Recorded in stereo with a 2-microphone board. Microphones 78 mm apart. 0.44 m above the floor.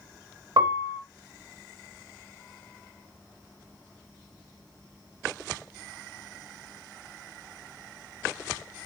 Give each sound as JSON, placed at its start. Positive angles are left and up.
{"t": 0.6, "sound": "a piano", "side_deg": -65, "distance_m": 0.5}